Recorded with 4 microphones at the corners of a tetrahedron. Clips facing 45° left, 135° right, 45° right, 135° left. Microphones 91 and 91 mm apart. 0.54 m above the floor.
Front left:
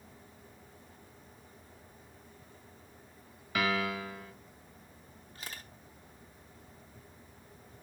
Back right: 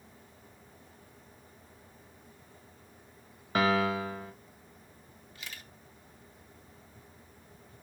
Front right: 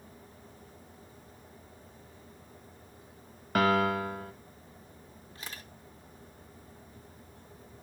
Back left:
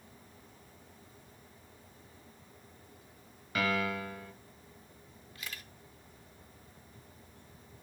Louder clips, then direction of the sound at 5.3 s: Front left 1 dB, front right 1 dB; straight ahead.